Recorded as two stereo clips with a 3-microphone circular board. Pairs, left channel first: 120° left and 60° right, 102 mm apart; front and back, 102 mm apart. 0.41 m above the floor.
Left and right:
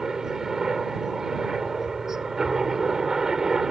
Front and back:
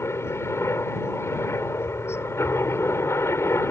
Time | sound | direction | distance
0.0 | a helicopter | 20° left | ?